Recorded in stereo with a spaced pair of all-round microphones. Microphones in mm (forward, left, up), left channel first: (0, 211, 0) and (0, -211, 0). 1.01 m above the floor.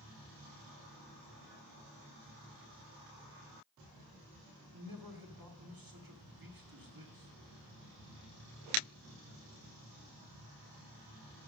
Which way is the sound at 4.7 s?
55° right (ahead or behind).